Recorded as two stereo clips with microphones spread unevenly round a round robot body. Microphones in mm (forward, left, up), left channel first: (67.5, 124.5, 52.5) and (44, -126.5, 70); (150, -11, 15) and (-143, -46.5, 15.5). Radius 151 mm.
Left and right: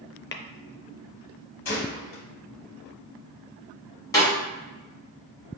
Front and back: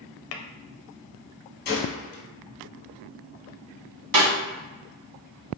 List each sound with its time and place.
0.3 s tapping: 45° left, 0.6 m
1.6 s a gunshot: 70° left, 1.3 m
4.1 s a snare drum: 165° left, 1.9 m